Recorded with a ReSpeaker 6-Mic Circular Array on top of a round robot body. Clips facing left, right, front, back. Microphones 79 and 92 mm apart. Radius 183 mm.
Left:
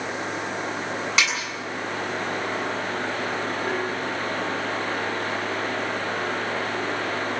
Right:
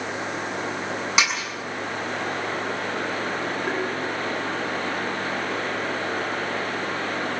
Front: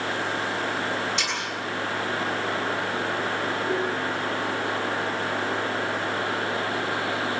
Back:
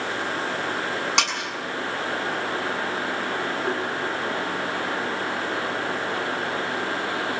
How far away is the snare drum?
About 7.5 m.